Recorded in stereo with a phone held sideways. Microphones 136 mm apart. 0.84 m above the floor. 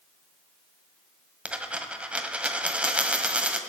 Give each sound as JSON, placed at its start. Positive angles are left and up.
{"t": 1.4, "sound": "a dropped coin", "side_deg": -10, "distance_m": 1.6}